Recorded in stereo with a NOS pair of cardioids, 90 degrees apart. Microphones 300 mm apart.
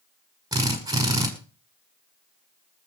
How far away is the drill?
About 5.5 m.